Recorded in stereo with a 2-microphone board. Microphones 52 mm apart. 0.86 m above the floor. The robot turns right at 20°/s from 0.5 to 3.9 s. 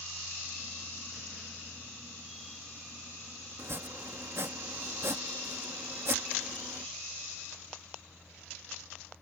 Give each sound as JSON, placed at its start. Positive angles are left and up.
{"t": 3.6, "sound": "chopping", "side_deg": -60}